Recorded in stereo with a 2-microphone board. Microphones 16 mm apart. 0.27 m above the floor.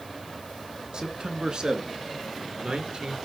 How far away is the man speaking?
About 2.5 m.